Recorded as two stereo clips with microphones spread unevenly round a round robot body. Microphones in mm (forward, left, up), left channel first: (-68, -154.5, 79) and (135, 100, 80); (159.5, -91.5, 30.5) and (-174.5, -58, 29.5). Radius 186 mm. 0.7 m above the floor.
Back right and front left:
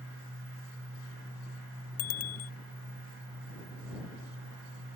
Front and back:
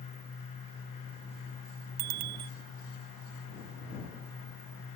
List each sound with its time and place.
2.0 s a bicycle bell: straight behind